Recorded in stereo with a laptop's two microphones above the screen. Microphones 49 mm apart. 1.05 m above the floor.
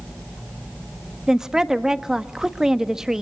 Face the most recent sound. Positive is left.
turn(degrees=-10)  # may be behind; listen again after turning